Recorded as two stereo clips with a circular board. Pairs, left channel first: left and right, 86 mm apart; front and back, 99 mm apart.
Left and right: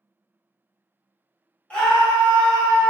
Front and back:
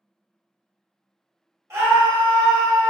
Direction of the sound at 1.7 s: 155° left.